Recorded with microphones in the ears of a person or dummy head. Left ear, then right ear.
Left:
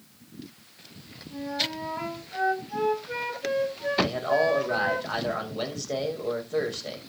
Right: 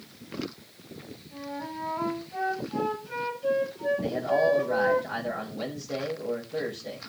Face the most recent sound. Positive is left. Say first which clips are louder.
# left 3 dB
turn(degrees=55)  # may be behind; listen again after turning